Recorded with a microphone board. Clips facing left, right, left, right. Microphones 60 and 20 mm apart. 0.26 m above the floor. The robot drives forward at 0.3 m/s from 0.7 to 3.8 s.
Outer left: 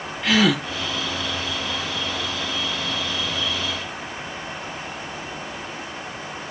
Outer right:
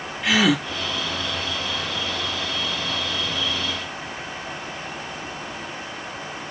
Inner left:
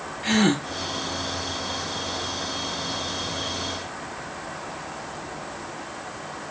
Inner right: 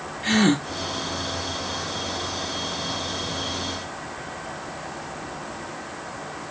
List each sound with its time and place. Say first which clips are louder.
0.2 s a gasp: even, inner right 1 dB; 5° right (ahead or behind), 1.0 m